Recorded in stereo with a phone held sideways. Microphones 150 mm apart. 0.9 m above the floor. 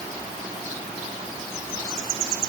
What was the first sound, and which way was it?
Only background noise.